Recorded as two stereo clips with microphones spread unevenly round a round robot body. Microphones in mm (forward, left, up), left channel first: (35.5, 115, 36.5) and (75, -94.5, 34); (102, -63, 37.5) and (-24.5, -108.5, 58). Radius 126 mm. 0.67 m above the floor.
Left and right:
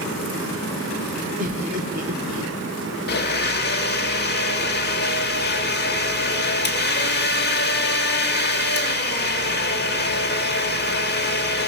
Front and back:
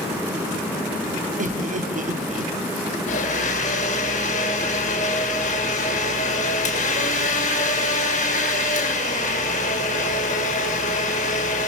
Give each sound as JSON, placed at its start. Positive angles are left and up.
{"t": 1.4, "sound": "laughter", "azimuth_deg": -135, "distance_m": 1.5}
{"t": 3.1, "sound": "a blender", "azimuth_deg": 60, "distance_m": 1.7}